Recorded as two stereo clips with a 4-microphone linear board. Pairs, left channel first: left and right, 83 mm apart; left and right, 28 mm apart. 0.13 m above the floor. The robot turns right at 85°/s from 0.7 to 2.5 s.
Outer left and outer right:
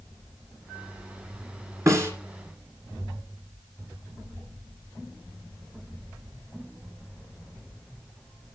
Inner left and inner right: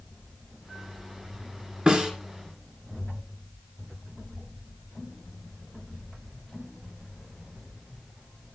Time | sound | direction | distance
1.9 | a snare drum | 40° right (ahead or behind) | 1.7 m